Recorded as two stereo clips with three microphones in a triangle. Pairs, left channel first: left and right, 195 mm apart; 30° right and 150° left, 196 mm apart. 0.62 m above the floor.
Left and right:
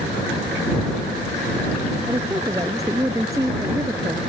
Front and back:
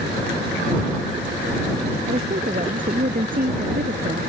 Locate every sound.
2.1 s a woman speaking: 165° right